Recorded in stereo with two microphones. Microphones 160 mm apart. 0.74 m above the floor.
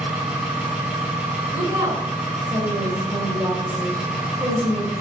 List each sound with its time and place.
0.0 s an engine running: 5° right (ahead or behind), 3.5 m
1.5 s a woman speaking: 20° right (ahead or behind), 3.5 m